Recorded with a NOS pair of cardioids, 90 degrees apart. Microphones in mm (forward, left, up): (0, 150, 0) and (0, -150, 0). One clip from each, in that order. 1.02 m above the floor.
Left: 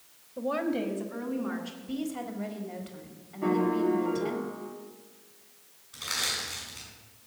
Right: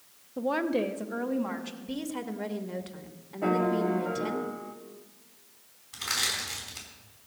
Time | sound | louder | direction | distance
0.4 | a woman speaking | right 2 dB | 20° right | 0.7 m
1.8 | a woman speaking | left 1 dB | 40° right | 1.3 m
3.4 | a piano | even | 20° right | 1.1 m
5.9 | crushing | right 1 dB | 65° right | 5 m